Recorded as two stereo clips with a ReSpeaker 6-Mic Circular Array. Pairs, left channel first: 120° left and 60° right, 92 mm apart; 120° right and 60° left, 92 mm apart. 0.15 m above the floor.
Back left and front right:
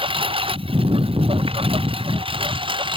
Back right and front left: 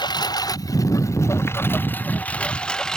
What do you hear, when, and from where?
0.0 s a lawn mower: 80° right; by 3.0 s 35° right